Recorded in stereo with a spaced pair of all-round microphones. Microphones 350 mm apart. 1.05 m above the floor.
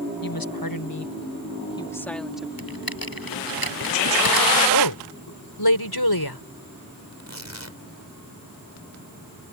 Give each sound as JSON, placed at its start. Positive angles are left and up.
{"t": 0.2, "sound": "a woman speaking", "side_deg": 65}
{"t": 2.6, "sound": "typing on a keyboard", "side_deg": 65}
{"t": 4.7, "sound": "a woman speaking", "side_deg": 80}
{"t": 7.1, "sound": "tearing paper", "side_deg": -45}